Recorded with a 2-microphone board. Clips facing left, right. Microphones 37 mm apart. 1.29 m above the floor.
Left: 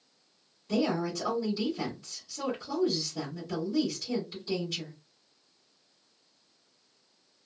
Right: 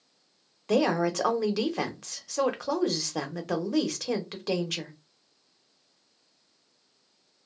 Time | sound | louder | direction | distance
0.7 | a woman speaking | right 5 dB | 85° right | 0.7 m